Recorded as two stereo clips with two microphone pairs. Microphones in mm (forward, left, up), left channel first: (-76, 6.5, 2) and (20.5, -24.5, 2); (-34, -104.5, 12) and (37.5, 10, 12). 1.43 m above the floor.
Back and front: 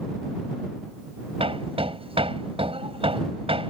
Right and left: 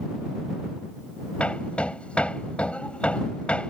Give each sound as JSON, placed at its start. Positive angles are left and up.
{"t": 1.4, "sound": "hammering", "azimuth_deg": -40}